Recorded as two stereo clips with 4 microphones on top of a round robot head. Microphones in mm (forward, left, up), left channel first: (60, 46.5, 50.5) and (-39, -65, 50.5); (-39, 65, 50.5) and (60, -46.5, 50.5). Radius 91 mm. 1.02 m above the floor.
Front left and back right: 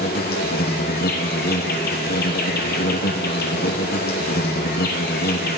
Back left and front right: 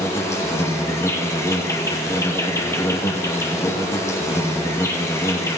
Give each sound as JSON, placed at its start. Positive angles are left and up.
{"t": 0.0, "sound": "an insect", "azimuth_deg": 60, "distance_m": 1.3}